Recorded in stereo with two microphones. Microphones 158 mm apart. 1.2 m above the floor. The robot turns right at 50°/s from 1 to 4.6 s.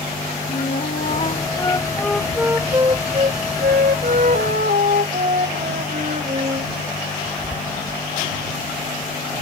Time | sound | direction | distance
0.5 | a flute | 120° left | ?